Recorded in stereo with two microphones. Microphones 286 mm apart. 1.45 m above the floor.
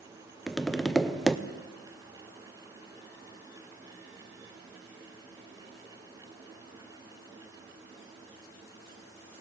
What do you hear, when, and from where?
0.5 s tapping: centre (ahead or behind), 0.5 m